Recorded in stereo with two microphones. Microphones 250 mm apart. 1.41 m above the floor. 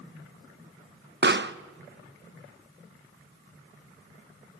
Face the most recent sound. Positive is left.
turn(degrees=-45)  # may be behind; listen again after turning